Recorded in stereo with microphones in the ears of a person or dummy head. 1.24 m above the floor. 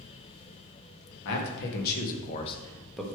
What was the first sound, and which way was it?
A man speaking, 65° left (ahead or behind).